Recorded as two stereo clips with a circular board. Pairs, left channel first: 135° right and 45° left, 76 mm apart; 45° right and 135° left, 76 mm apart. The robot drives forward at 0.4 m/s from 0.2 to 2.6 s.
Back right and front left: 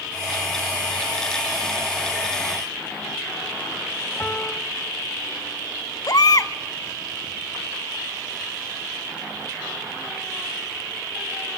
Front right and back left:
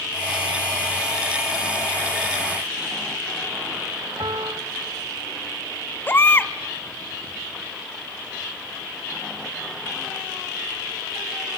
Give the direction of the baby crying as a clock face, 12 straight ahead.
4 o'clock.